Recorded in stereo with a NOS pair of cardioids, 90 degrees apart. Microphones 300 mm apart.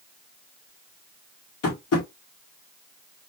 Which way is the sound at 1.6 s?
50° left.